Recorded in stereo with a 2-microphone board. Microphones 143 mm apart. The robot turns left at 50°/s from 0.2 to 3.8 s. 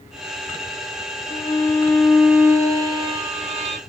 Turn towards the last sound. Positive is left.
turn(degrees=-85)